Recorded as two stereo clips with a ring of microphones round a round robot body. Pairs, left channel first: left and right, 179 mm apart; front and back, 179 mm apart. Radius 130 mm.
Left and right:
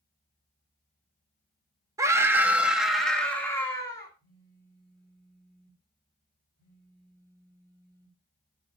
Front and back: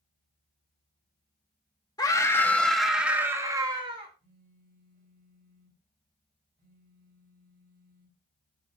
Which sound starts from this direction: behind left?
A phone buzzing, at 4.2 s.